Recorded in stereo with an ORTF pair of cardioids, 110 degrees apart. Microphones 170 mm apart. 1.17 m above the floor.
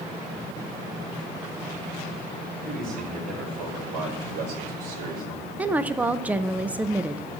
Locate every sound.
2.6 s a man speaking: 55° right, 6.5 m; by 5.5 s 70° right, 4 m
5.6 s a woman speaking: 10° right, 0.5 m